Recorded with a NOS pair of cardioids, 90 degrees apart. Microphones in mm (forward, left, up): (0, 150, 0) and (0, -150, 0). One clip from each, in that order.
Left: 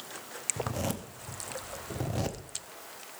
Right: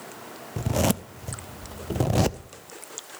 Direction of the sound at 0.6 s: 45° right.